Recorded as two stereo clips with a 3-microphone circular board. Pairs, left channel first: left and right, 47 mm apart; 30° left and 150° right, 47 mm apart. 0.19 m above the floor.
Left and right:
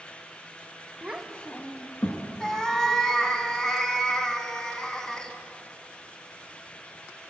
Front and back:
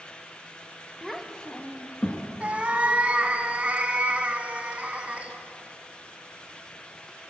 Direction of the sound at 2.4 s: 160° left.